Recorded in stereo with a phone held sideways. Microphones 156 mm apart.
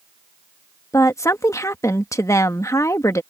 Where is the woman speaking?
20° left (ahead or behind).